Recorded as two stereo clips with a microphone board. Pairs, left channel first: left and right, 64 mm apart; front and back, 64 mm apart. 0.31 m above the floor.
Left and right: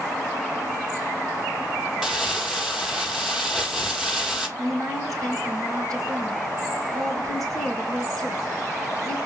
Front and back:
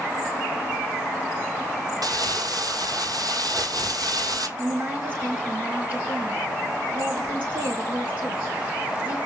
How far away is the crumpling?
About 1.9 m.